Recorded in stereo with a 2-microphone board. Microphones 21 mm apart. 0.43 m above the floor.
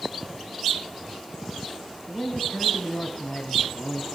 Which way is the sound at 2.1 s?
60° left (ahead or behind).